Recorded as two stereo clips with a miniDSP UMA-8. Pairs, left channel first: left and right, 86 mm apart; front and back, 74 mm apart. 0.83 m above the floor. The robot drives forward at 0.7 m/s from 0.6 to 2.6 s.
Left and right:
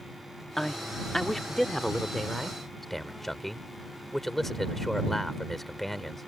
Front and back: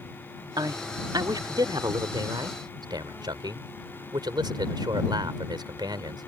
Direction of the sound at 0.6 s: 175° left.